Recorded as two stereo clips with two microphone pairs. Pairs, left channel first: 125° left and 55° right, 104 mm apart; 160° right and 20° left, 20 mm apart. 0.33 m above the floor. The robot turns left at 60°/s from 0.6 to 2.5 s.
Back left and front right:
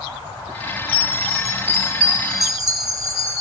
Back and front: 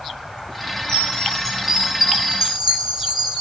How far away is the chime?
About 5 m.